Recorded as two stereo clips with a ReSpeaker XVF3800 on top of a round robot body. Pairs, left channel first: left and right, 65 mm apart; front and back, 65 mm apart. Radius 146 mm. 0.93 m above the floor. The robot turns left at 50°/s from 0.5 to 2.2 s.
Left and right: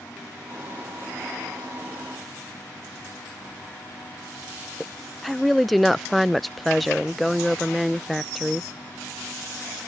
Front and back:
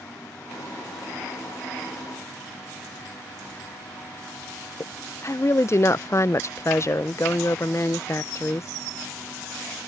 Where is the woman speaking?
Straight ahead.